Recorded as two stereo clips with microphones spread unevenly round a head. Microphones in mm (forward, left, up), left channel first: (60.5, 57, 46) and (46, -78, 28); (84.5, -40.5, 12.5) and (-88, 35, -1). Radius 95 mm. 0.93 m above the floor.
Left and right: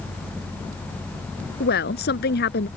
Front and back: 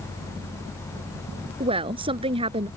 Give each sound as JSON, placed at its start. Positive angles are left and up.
{"t": 1.6, "sound": "a woman speaking", "azimuth_deg": 90}